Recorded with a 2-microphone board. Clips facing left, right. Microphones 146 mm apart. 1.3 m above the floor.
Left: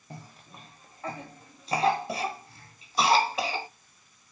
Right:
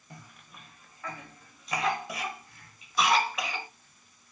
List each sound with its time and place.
0.1 s a cough: 30° left (ahead or behind), 0.6 m